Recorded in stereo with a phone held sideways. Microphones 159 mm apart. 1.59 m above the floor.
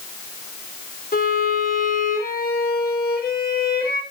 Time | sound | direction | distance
1.1 | a violin | 75° left (ahead or behind) | 4 m